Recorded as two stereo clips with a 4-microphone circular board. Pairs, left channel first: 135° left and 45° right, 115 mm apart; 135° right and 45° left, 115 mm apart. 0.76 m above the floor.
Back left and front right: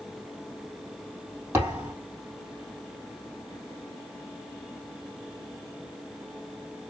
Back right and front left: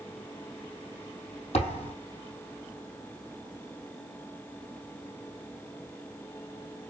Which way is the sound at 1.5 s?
115° right.